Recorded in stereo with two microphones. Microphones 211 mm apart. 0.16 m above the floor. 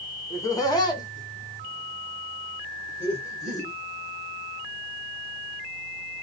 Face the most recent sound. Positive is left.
turn(degrees=15)  # may be behind; listen again after turning